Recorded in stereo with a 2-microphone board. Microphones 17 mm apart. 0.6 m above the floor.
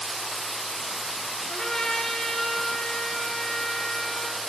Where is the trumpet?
45° left (ahead or behind), 0.7 m.